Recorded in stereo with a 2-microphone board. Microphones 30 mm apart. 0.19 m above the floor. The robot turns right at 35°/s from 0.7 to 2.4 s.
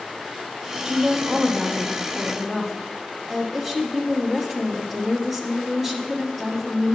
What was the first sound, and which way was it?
A woman speaking, 20° right (ahead or behind).